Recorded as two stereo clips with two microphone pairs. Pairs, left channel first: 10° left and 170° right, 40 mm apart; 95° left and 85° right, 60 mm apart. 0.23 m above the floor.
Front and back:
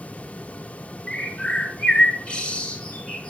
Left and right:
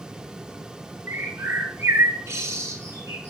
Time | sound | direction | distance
1.1 | a bird | 50° right | 1.6 m